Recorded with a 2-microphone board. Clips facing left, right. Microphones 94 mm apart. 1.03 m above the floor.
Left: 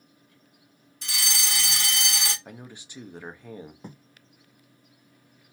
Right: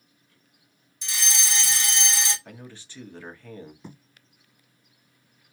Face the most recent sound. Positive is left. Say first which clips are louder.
# left 1 dB
turn(degrees=50)  # may be behind; listen again after turning